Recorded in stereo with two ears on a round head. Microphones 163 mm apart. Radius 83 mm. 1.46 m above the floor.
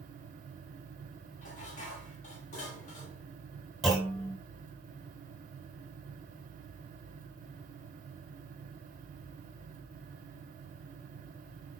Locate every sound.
1.4 s dishes clattering: 40° left (ahead or behind), 2.5 m
3.8 s a clunk: centre (ahead or behind), 3 m